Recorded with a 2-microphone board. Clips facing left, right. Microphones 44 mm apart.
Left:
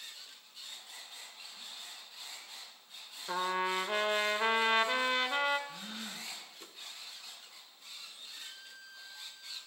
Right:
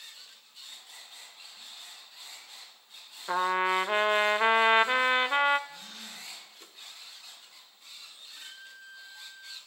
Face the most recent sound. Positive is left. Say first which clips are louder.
# right 6 dB
turn(degrees=-25)  # may be behind; listen again after turning